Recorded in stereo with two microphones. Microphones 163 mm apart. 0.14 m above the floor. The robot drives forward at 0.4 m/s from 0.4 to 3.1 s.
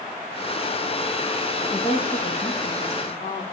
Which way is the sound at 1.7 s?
55° left (ahead or behind).